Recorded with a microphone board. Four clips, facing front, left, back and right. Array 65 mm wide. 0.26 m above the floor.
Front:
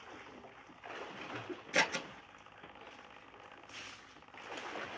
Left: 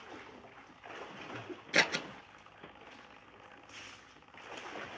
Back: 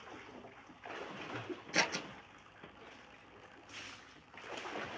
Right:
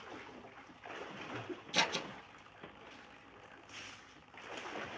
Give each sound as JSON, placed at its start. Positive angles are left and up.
{"t": 1.7, "sound": "scissors", "azimuth_deg": 80, "distance_m": 0.7}